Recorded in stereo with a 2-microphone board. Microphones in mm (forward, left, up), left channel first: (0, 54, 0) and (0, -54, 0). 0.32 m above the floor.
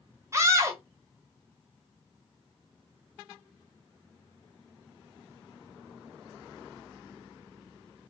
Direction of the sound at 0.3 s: 30° right (ahead or behind).